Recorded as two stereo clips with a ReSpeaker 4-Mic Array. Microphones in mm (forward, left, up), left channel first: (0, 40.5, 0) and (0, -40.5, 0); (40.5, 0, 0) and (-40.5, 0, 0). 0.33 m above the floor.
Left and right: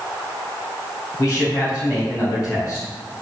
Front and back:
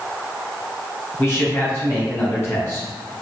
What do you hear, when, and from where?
1.2 s a man speaking: 55° left, 1.5 m